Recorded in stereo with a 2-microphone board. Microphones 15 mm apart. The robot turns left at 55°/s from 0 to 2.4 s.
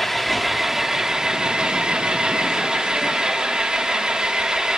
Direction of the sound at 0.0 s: 20° left.